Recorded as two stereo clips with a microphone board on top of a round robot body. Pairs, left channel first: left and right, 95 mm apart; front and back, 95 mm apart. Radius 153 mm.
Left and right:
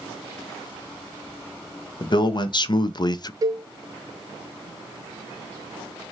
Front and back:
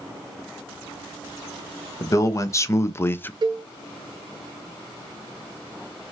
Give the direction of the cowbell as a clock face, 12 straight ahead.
5 o'clock.